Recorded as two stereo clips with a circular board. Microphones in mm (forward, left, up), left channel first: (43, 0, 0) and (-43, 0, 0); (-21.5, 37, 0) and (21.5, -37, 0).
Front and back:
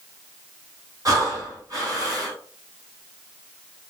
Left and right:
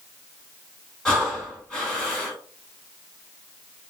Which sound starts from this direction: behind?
Breathing, at 1.1 s.